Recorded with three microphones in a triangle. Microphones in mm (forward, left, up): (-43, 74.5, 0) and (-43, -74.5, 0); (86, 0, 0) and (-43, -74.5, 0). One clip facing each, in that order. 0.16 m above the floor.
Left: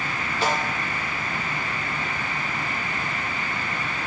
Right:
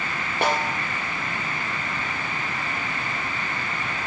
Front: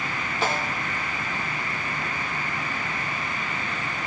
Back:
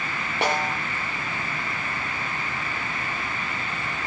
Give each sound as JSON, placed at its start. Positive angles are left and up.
{"t": 0.4, "sound": "a snare drum", "azimuth_deg": -120, "distance_m": 5.0}